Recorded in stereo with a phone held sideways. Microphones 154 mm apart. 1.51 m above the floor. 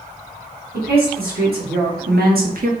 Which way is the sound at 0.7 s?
75° right (ahead or behind).